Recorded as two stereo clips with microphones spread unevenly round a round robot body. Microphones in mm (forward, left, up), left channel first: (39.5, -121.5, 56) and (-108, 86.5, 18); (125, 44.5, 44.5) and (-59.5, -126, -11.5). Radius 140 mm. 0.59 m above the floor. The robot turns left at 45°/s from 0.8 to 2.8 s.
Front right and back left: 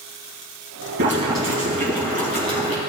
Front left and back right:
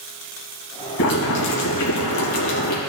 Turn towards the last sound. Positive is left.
turn(degrees=-15)